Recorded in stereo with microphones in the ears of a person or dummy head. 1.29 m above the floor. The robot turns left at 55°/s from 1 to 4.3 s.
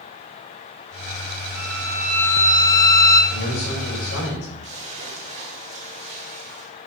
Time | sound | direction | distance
1.6 | a violin | 175° right | 1.9 m
3.3 | a man speaking | 130° left | 4.5 m
4.6 | a splash | 35° right (ahead or behind) | 2.5 m